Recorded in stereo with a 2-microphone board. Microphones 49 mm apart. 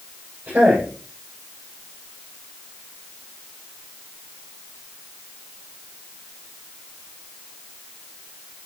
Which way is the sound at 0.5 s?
30° right (ahead or behind).